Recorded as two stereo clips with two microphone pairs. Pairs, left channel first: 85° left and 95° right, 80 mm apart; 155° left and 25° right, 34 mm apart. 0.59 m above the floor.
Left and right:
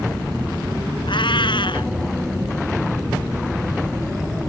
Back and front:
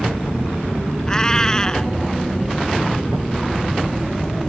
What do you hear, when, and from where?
1.1 s a cat meowing: 85° left